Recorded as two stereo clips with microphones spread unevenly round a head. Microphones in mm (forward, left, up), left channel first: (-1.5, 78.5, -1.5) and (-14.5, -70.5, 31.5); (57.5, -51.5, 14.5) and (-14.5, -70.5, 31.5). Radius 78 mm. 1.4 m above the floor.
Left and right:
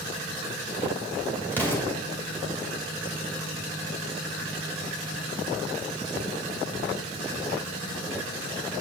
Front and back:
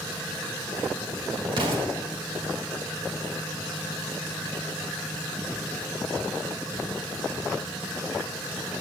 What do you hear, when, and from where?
1.5 s an explosion: 165° left, 2 m